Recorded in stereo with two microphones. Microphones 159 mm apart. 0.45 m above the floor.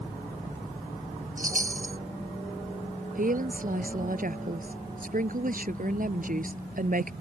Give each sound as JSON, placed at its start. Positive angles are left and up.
{"t": 1.4, "sound": "a chime", "side_deg": -60}
{"t": 3.1, "sound": "a woman speaking", "side_deg": -60}